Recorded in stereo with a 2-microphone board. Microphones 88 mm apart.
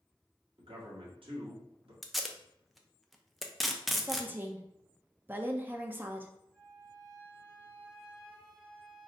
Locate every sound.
0.6 s a man speaking: 75° right (ahead or behind), 1.7 m
2.0 s tape being pulled: centre (ahead or behind), 0.5 m
4.0 s a woman speaking: 20° right (ahead or behind), 0.6 m
6.5 s a flute: 10° left (ahead or behind), 1.0 m